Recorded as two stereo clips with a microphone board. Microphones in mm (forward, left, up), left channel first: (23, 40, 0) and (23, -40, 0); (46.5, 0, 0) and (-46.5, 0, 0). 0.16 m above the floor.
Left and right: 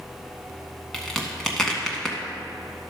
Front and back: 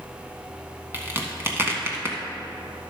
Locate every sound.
0.9 s a crack: 165° left, 1.6 m